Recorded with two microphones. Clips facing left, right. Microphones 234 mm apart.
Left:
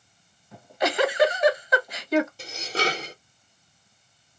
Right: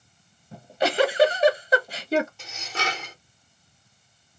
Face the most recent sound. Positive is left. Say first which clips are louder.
# left 6 dB
turn(degrees=35)  # may be behind; listen again after turning